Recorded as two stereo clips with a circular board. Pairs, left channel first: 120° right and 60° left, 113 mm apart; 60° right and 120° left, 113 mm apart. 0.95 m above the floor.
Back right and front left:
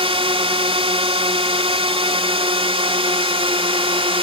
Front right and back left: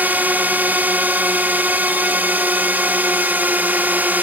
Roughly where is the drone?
Ahead left.